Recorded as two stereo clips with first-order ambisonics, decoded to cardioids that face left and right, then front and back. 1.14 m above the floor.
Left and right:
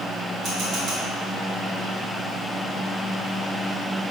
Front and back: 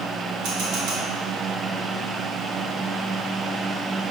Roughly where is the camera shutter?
Behind right.